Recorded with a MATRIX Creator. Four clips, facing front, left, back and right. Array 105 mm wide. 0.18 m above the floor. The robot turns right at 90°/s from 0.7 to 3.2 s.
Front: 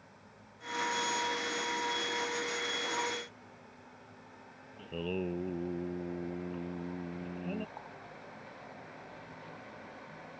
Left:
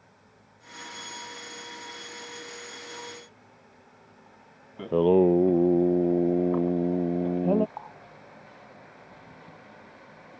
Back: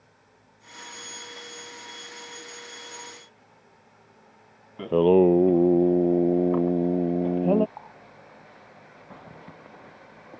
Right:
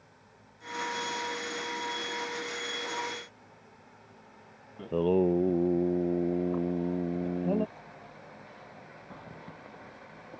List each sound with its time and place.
4.8 s singing: 155° left
7.8 s a running tap: 110° left
9.1 s a zipper: 155° right